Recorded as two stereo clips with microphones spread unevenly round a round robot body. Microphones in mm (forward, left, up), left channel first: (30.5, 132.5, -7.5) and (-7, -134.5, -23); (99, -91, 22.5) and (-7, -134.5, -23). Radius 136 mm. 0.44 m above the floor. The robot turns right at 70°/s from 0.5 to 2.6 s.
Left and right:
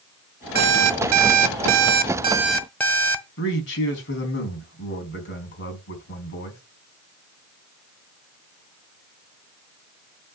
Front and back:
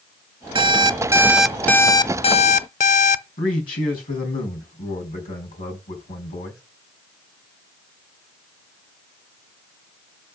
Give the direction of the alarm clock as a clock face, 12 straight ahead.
5 o'clock.